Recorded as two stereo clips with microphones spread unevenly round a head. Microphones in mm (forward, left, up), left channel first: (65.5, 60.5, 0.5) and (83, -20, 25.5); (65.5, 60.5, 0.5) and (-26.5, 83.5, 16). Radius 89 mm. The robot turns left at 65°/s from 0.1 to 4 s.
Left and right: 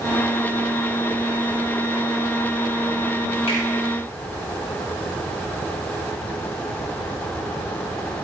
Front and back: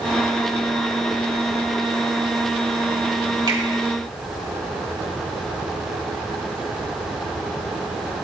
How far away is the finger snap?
About 3 m.